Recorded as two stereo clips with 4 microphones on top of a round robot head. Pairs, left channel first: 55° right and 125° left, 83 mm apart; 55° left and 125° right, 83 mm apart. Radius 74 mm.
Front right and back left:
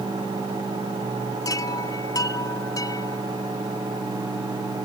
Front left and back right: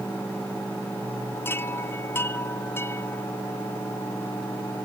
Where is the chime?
5° right.